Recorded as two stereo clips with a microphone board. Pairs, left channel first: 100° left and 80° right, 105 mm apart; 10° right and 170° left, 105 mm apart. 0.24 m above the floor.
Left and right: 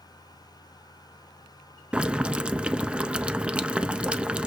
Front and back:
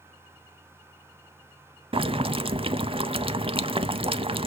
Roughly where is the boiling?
Behind.